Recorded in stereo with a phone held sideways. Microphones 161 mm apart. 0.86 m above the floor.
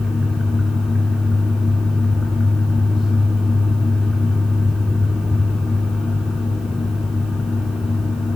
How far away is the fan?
About 7.5 m.